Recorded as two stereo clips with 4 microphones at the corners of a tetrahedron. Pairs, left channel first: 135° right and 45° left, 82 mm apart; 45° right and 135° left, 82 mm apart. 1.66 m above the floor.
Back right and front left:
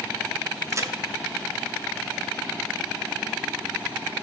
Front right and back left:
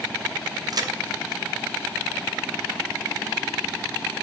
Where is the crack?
100° left, 0.8 m.